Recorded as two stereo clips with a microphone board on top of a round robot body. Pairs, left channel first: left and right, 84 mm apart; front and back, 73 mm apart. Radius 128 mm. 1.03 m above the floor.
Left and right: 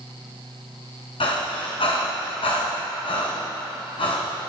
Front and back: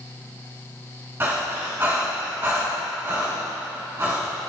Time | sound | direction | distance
1.2 | breathing | 115° left | 2.5 m